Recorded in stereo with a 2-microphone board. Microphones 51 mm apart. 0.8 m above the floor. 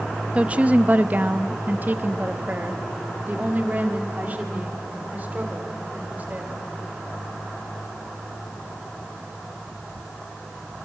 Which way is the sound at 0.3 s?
25° right (ahead or behind).